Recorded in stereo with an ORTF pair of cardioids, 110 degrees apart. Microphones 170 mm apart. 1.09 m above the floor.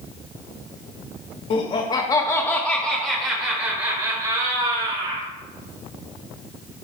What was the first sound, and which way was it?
Laughter, 50° left.